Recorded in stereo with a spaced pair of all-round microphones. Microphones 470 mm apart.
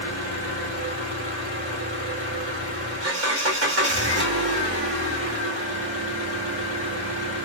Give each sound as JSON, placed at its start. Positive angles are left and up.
{"t": 0.0, "sound": "an engine running", "side_deg": -30, "distance_m": 1.3}